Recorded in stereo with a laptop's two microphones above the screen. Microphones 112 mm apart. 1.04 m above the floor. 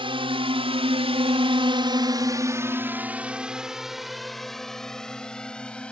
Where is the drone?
55° right (ahead or behind); by 5.9 s 10° left (ahead or behind).